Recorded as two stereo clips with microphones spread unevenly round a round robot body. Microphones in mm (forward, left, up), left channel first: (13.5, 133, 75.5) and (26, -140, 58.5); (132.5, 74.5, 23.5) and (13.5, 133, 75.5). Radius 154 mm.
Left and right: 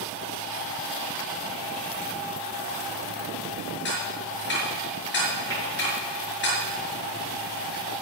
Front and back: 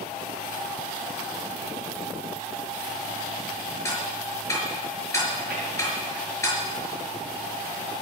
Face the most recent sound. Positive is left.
turn(degrees=170)